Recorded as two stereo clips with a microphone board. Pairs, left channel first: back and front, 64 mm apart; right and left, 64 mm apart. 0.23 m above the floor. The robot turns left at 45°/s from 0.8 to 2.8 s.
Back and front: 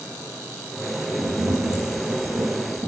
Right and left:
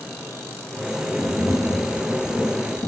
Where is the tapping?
20° left, 2 m; by 2.9 s 55° right, 2 m.